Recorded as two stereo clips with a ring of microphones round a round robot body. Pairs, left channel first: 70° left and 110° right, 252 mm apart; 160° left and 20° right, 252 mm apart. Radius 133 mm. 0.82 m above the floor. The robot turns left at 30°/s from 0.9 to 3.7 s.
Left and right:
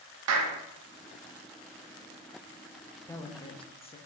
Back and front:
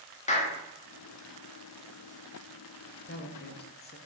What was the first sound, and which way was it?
A clap, 140° right.